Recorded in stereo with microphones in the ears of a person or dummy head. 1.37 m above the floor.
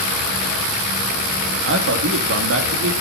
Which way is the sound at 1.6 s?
65° right (ahead or behind).